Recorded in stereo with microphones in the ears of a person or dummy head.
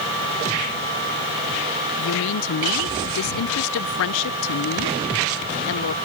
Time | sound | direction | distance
2.0 | a woman speaking | 75° left (ahead or behind) | ?